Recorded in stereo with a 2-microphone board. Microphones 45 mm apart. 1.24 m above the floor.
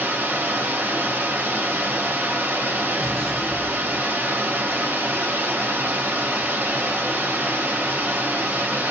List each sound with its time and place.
0.0 s running water: 45° right (ahead or behind), 0.7 m
3.0 s an explosion: 10° left (ahead or behind), 0.8 m